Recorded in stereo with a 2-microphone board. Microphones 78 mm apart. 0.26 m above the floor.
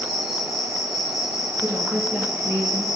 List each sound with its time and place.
0.0 s an insect: centre (ahead or behind), 5 m
1.6 s a woman speaking: 15° right (ahead or behind), 5.5 m